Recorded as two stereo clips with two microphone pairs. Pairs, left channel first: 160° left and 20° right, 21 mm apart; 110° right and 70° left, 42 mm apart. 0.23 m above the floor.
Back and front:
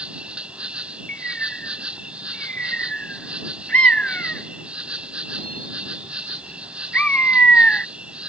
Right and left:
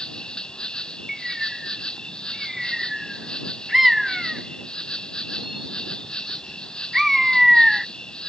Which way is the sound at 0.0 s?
40° right.